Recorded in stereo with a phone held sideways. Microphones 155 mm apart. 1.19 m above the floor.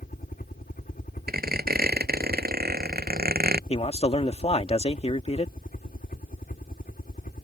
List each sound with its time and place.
0.0 s a helicopter: 65° left (ahead or behind)
1.3 s a squeak: 80° right
3.7 s a man speaking: 40° left (ahead or behind)